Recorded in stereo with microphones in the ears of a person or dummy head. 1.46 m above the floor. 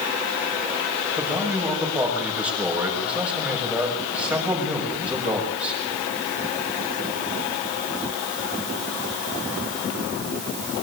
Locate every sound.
1.2 s a man speaking: centre (ahead or behind), 7 m